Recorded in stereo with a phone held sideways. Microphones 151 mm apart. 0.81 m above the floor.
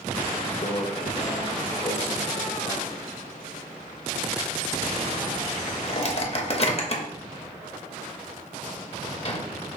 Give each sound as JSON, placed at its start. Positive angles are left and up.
{"t": 0.6, "sound": "a microwave", "side_deg": 45, "distance_m": 0.6}